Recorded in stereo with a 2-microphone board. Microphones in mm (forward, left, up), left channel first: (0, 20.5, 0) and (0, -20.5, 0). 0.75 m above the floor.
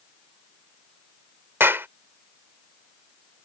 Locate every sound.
1.6 s a clap: 65° right (ahead or behind)